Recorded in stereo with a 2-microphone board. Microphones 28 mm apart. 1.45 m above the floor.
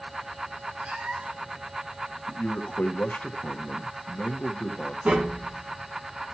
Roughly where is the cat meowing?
Right.